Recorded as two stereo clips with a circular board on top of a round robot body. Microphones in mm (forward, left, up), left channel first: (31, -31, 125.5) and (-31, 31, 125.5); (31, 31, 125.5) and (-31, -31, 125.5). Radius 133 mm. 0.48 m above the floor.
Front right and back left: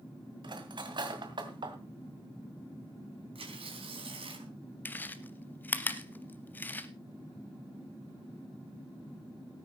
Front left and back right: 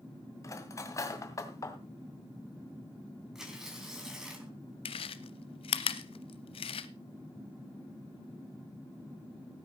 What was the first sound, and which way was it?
Cutlery clinking, 100° left.